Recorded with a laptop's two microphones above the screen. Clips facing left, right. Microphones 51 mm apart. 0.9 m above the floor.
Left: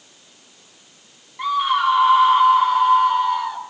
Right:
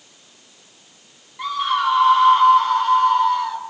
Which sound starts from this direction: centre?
A scream, at 1.4 s.